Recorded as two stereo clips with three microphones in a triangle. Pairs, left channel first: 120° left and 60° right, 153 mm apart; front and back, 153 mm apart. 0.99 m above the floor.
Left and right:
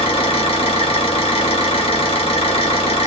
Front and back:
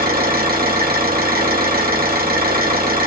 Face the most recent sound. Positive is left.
turn(degrees=170)